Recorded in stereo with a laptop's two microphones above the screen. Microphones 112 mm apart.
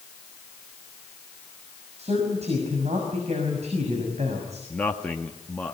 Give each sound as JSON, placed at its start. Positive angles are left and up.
{"t": 2.0, "sound": "a man speaking", "side_deg": -75, "distance_m": 6.0}
{"t": 4.7, "sound": "a man speaking", "side_deg": 10, "distance_m": 1.7}